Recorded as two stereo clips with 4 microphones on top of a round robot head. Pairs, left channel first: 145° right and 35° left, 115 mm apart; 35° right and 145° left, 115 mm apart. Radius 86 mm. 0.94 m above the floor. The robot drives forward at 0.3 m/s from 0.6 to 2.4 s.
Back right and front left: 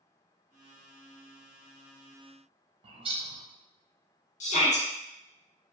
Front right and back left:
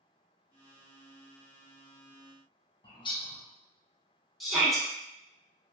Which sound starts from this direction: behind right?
A shout, at 4.4 s.